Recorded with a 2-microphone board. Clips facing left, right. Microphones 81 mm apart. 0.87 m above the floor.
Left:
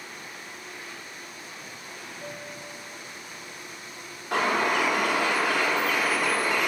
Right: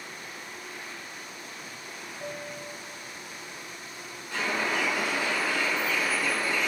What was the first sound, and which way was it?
A piano, 25° right (ahead or behind).